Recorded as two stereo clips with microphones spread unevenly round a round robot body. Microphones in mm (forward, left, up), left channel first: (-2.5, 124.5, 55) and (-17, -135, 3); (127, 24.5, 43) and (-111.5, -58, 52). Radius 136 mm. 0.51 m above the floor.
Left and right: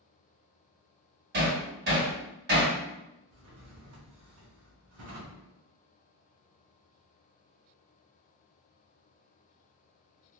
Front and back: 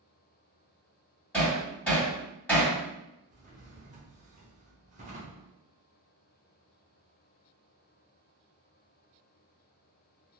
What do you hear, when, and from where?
1.3 s hammering: 65° right, 1.6 m
3.3 s a drawer: 100° right, 0.8 m